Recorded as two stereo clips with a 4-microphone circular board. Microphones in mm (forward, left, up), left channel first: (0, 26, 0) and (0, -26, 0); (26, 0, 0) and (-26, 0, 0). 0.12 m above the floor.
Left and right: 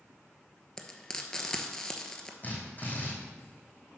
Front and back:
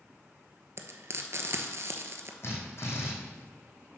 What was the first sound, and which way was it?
Frying, 165° left.